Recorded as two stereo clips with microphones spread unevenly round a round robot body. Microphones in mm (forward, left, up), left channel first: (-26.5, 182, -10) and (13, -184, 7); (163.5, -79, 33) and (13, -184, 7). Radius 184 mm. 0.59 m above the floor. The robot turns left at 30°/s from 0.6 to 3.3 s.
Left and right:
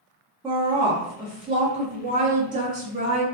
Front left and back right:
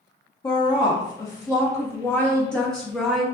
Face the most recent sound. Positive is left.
turn(degrees=-85)